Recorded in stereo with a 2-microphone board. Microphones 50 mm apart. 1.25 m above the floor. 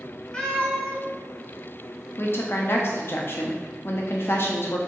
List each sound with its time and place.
0.3 s a cat meowing: 20° left (ahead or behind), 0.8 m
2.2 s a woman speaking: 50° left (ahead or behind), 0.7 m